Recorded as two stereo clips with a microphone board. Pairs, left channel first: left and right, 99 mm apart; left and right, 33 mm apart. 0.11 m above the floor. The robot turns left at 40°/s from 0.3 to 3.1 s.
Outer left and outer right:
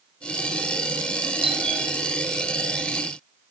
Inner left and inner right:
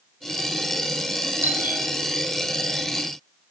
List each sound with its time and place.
1.4 s a doorbell: 65° right (ahead or behind), 4.5 m; by 1.8 s 55° right (ahead or behind), 4.5 m